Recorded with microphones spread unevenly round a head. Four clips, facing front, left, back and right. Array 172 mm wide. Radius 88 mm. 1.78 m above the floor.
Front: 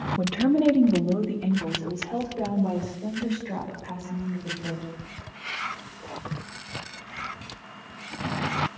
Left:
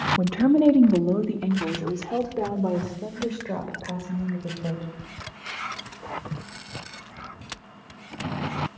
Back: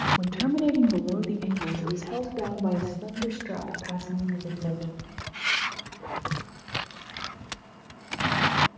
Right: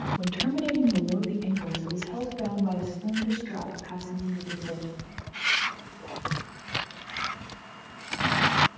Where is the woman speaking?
60° left, 2.5 m; by 4.9 s 110° left, 8.5 m.